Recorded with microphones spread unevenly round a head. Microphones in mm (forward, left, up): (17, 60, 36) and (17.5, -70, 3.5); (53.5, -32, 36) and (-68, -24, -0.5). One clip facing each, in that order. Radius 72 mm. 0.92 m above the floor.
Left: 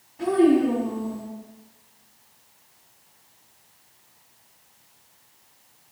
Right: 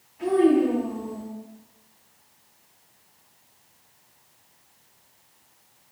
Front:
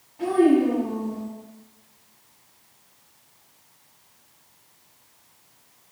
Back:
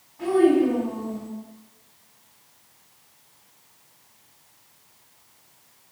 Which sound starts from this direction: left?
A child speaking, at 0.2 s.